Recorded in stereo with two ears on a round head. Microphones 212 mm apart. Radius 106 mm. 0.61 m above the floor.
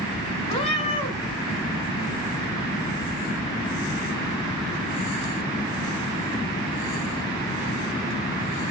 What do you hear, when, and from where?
0.5 s a cat meowing: 30° left (ahead or behind), 2 m